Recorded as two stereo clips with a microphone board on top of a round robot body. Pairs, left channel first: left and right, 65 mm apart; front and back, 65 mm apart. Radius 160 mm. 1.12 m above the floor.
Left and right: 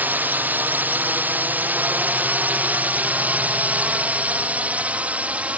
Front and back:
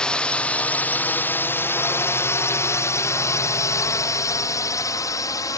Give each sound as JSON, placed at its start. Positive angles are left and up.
{"t": 0.0, "sound": "a drone", "azimuth_deg": -65}